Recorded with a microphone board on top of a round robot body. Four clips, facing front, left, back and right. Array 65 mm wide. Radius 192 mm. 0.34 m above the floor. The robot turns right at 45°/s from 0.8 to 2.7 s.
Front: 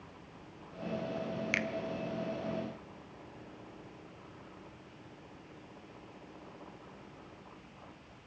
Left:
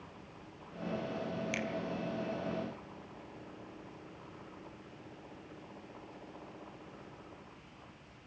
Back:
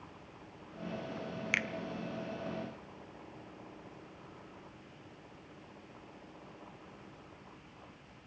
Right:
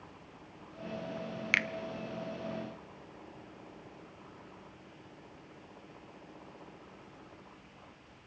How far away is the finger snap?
About 1.3 m.